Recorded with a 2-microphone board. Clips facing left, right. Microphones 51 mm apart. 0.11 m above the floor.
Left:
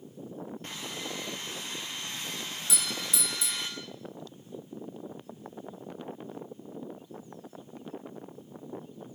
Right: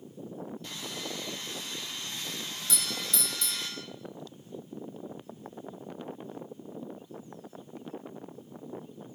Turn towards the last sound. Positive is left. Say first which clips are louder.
# even
turn(degrees=10)  # may be behind; listen again after turning